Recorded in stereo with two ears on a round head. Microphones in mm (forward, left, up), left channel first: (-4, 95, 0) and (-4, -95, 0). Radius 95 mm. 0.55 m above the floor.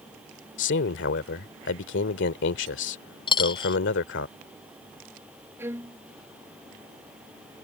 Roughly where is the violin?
Centre.